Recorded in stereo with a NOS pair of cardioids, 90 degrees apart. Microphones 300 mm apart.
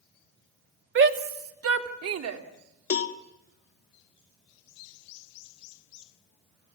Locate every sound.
0.9 s a shout: 40° right, 2 m; by 2.4 s 60° right, 3 m
2.9 s a cowbell: 50° left, 1.6 m